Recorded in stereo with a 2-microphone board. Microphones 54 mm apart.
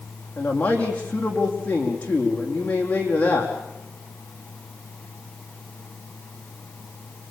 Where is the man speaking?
25° left (ahead or behind), 5 m.